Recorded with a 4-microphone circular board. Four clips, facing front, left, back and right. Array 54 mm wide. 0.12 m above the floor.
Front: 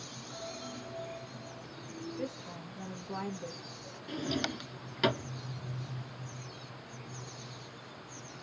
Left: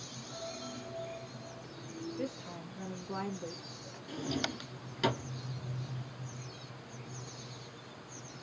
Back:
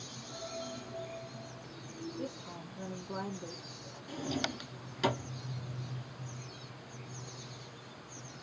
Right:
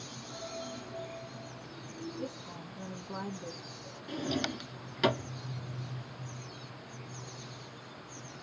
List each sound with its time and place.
2.2 s a woman speaking: 55° left, 2 m
4.1 s a drawer: 35° right, 0.6 m